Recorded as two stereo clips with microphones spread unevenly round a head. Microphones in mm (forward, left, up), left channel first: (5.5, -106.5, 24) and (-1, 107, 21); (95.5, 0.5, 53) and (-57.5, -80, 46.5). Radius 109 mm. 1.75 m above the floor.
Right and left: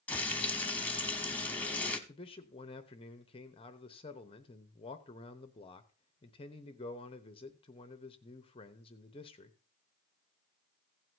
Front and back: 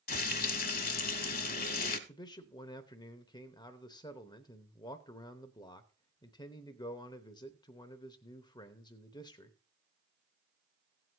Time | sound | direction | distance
0.1 | frying | 5° right | 1.1 m
2.1 | a man speaking | 30° right | 0.8 m